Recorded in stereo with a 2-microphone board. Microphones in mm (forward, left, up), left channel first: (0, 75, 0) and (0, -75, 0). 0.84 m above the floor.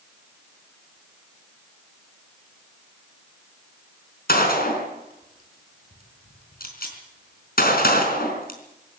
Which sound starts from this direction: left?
A gunshot, at 4.3 s.